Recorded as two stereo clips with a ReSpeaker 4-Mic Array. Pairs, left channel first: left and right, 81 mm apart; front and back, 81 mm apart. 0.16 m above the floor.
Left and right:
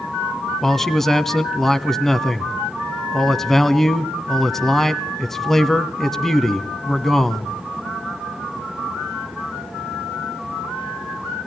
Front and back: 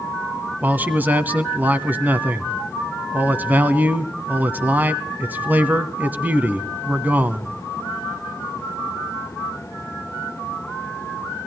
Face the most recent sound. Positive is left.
turn(degrees=165)